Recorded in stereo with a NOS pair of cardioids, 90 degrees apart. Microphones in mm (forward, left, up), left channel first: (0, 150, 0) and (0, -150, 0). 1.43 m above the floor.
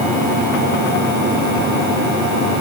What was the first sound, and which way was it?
Only background noise.